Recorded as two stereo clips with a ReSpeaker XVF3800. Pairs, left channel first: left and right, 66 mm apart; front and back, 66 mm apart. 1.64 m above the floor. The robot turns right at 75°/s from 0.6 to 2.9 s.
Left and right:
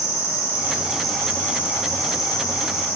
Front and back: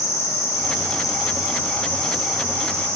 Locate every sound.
0.0 s an insect: 30° right, 5.5 m; by 3.0 s 145° left, 5.5 m